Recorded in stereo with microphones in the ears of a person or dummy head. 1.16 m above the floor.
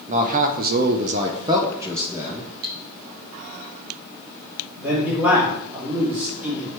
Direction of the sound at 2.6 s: 50° right (ahead or behind).